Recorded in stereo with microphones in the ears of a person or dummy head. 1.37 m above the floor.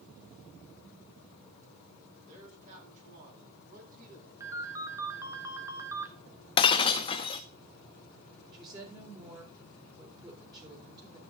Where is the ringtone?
15° right (ahead or behind), 1.0 m.